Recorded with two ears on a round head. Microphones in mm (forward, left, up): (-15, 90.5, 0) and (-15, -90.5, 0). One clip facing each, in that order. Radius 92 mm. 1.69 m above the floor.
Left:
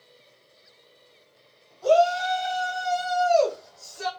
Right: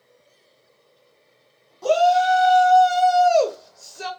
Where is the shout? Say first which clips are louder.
Right 3 dB; 70° right (ahead or behind), 1.4 m; by 4.1 s 20° right (ahead or behind), 0.9 m.